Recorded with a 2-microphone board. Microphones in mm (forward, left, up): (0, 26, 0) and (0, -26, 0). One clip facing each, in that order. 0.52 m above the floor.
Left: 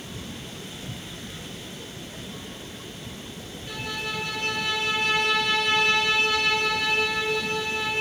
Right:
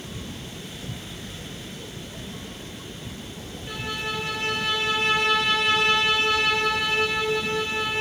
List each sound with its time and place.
3.7 s a violin: 20° right (ahead or behind), 6.5 m